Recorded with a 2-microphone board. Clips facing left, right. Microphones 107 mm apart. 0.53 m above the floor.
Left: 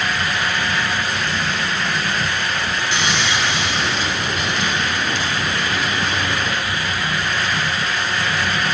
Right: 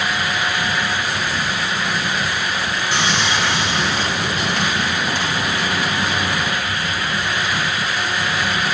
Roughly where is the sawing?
Right.